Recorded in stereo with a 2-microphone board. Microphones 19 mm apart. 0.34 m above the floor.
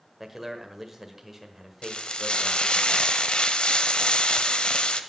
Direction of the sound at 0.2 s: 15° right (ahead or behind).